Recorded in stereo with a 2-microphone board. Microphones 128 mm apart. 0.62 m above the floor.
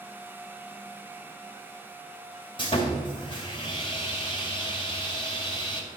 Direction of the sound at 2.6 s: 40° left (ahead or behind).